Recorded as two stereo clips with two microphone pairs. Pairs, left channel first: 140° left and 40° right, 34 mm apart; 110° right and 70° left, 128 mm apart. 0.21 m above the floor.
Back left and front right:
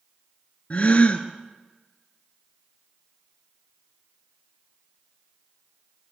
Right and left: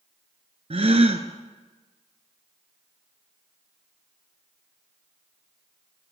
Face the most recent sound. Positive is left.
turn(degrees=95)